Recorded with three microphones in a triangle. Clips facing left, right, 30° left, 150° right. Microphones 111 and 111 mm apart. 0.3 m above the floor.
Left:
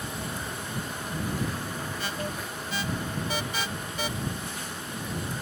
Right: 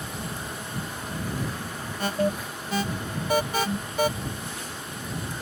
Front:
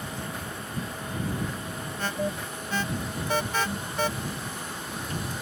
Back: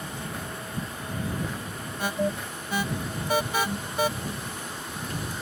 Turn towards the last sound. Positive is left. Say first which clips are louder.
# right 13 dB, back 3 dB
turn(degrees=-75)